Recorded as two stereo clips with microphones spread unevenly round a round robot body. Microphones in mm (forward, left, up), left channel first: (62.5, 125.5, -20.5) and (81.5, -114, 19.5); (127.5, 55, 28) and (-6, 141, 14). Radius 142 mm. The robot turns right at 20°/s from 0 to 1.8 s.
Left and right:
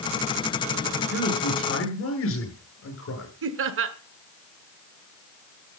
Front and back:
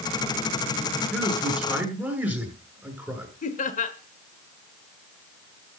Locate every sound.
1.1 s a man speaking: 55° left, 6.5 m; by 3.3 s 70° left, 6.5 m
3.4 s laughter: 60° right, 1.2 m